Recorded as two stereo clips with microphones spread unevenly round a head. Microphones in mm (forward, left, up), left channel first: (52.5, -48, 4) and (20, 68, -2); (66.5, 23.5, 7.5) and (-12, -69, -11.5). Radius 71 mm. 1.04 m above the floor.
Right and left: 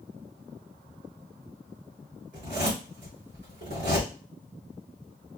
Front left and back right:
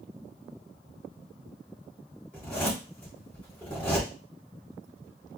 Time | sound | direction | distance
2.3 | a zipper | 130° left | 3 m